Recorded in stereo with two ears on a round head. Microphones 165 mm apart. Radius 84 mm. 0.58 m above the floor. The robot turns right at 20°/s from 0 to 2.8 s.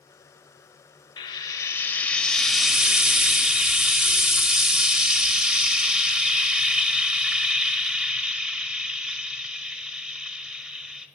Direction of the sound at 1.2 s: 155° left.